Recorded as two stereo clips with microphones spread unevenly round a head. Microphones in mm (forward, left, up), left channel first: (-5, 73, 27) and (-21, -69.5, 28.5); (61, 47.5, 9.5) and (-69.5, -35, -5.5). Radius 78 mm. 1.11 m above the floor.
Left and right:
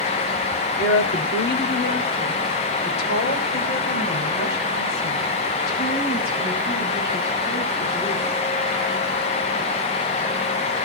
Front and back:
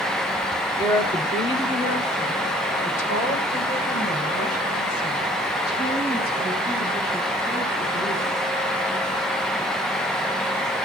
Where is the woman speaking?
95° left, 2.5 m; by 8.3 s 55° left, 9 m.